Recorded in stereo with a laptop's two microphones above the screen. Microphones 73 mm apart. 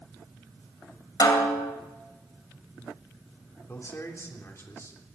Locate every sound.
1.2 s a snare drum: 60° left (ahead or behind), 2.5 m
3.7 s a man speaking: 40° left (ahead or behind), 3 m